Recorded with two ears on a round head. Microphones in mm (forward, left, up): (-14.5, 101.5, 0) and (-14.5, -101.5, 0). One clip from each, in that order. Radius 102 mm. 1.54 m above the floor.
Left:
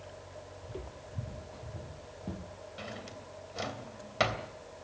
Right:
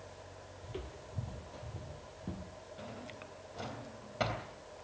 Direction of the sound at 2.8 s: 50° left (ahead or behind).